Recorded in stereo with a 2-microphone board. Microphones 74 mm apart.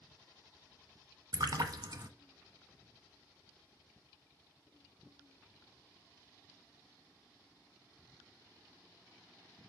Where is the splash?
60° right (ahead or behind), 0.9 m.